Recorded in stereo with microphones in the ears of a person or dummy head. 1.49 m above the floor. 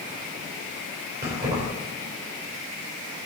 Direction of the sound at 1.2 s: 20° right (ahead or behind).